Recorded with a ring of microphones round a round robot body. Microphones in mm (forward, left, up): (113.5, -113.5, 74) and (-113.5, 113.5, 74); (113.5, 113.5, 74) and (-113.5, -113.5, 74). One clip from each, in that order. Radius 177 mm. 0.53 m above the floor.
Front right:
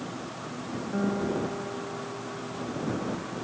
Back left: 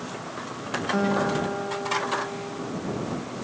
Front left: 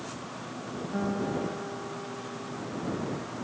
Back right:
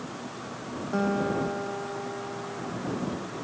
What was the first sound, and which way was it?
A guitar, 170° left.